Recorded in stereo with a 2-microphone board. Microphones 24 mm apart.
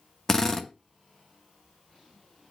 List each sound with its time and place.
0.3 s a drill: 20° left (ahead or behind), 1.0 m